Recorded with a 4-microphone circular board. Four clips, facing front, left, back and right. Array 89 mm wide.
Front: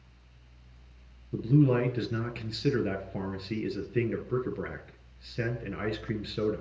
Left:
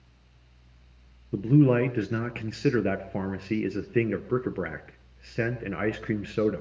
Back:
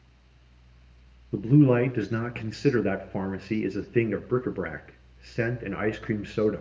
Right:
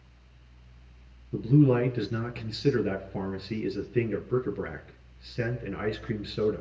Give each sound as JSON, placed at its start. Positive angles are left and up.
{"t": 1.3, "sound": "a man speaking", "azimuth_deg": 135, "distance_m": 1.6}